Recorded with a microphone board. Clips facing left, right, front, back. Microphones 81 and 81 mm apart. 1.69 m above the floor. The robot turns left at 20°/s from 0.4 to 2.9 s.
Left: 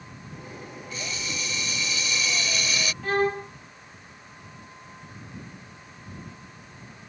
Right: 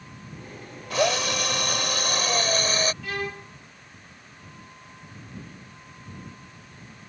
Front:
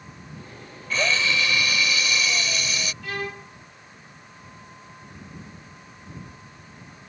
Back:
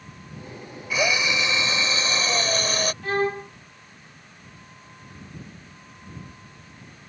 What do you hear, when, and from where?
0.9 s a drill: 100° right; by 2.9 s 140° right
3.0 s a violin: 135° left